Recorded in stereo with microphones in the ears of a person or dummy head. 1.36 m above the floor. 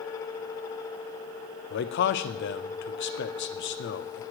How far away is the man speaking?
About 0.9 m.